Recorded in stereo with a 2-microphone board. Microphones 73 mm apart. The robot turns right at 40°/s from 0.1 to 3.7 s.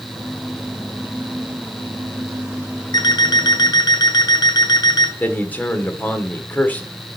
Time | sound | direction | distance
2.9 | an alarm clock | 75° left | 1.4 m
5.2 | a man speaking | 20° left (ahead or behind) | 1.3 m